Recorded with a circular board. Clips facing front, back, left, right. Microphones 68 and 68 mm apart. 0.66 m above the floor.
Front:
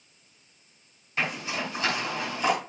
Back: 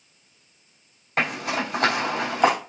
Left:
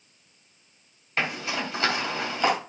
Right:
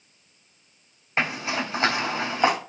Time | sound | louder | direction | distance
1.2 | a zipper | back 5 dB, right 2 dB | 155° right | 3 m